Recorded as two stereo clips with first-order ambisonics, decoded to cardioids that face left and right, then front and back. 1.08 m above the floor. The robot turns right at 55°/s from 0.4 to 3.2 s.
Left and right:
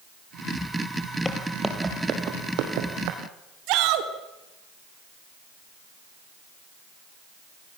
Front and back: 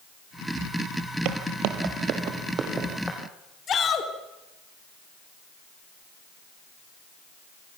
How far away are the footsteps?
About 1.8 m.